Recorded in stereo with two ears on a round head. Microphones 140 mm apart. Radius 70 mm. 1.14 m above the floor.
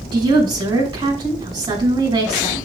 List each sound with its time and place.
0.1 s a woman speaking: 30° right (ahead or behind), 6 m